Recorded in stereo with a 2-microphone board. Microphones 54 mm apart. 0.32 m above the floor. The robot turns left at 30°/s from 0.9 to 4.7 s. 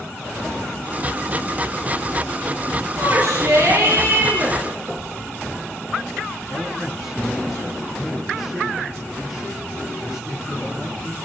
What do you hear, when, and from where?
3.0 s a shout: 85° right, 8 m; by 4.6 s 135° right, 8 m
4.9 s knocking: 15° right (ahead or behind), 5.5 m
6.5 s a man speaking: 25° right (ahead or behind), 6 m